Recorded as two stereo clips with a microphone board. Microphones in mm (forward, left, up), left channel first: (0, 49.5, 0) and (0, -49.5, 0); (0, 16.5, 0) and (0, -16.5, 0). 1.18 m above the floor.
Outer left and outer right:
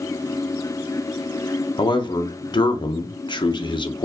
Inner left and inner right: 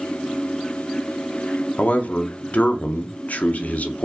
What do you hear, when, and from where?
1.8 s a man speaking: 55° left (ahead or behind), 0.8 m